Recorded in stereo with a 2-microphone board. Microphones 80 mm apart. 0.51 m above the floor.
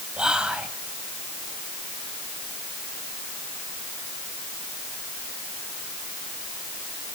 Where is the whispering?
10° right (ahead or behind), 2.5 m.